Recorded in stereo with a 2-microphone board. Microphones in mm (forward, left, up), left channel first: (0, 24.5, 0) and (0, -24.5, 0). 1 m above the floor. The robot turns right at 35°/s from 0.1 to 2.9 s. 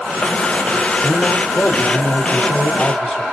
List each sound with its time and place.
1.0 s a man speaking: 95° left, 1.8 m; by 3.2 s 160° left, 1.8 m